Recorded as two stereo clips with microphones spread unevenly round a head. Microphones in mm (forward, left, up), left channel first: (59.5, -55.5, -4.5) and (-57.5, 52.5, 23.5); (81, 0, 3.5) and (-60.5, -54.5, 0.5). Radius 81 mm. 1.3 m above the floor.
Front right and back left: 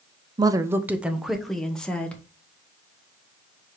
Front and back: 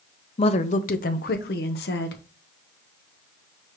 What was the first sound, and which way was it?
A woman speaking, 70° left.